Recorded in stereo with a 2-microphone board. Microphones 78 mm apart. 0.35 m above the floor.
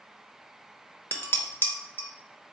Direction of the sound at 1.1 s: 30° left (ahead or behind).